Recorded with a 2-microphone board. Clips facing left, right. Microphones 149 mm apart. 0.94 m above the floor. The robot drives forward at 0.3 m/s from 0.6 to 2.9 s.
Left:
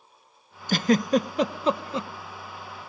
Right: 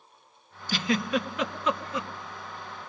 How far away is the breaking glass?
I don't hear breaking glass.